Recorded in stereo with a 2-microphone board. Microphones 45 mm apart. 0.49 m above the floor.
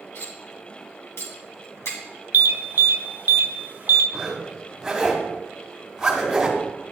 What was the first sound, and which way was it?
Cutlery clinking, 70° left (ahead or behind).